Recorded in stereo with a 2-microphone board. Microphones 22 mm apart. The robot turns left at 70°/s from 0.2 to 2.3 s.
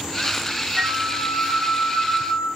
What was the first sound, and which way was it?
A flute, 25° left.